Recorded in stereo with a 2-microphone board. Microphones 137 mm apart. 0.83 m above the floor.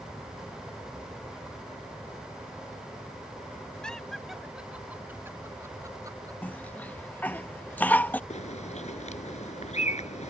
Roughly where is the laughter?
Centre.